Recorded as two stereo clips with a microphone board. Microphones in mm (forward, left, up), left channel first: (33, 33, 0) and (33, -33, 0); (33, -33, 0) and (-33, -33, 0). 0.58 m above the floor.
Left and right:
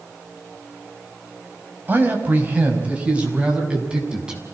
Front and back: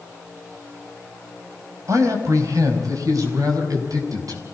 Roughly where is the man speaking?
Behind right.